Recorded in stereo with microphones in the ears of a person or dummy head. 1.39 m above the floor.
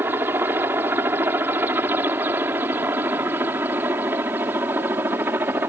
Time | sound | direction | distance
0.0 | a helicopter | 10° right (ahead or behind) | ?